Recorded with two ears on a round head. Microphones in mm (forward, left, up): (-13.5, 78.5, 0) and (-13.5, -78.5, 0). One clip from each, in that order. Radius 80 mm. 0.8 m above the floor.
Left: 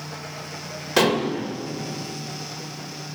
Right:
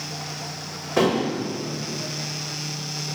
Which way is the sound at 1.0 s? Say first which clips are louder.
Left 1 dB; 55° left (ahead or behind).